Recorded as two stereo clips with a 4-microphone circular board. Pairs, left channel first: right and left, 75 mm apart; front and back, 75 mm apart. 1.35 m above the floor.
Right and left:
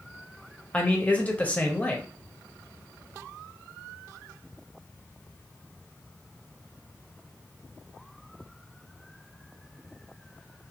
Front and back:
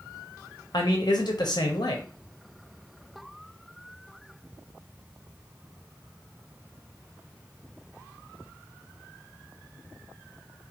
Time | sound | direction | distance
0.7 | a man speaking | 20° right | 0.7 m